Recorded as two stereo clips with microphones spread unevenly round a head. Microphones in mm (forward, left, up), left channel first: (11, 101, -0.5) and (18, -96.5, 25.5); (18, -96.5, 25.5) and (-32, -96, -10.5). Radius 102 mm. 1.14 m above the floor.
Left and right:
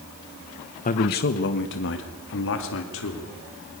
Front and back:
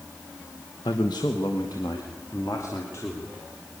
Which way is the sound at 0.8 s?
50° left.